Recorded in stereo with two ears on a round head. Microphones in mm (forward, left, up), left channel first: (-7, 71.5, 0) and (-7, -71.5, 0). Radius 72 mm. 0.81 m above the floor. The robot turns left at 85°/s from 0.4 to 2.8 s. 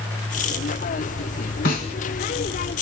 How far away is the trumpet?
I don't hear a trumpet.